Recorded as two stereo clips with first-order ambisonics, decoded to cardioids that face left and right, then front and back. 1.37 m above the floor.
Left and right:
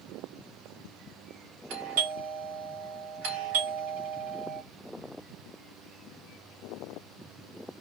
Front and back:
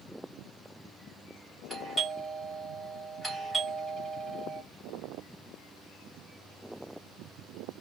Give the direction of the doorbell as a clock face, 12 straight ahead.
3 o'clock.